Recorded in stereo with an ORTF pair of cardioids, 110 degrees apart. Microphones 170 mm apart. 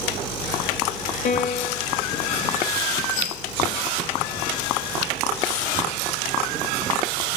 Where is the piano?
50° left, 0.6 m.